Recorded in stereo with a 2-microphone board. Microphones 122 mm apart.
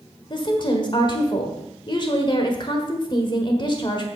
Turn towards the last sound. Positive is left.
turn(degrees=40)  # may be behind; listen again after turning